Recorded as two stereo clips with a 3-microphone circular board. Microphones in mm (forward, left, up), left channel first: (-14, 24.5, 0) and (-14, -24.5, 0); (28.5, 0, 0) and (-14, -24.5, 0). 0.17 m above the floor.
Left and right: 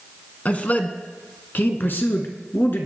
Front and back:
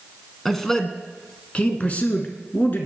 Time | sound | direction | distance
0.5 | a man speaking | 115° left | 1.6 m